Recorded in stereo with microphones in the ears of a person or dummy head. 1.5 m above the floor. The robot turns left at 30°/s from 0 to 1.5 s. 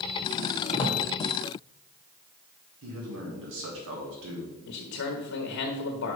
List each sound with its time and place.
0.7 s a drawer: 30° left (ahead or behind), 1.2 m; by 1.0 s 20° left (ahead or behind), 1.2 m
2.8 s a man speaking: 75° right (ahead or behind), 1.7 m
4.7 s a man speaking: 65° left (ahead or behind), 1.1 m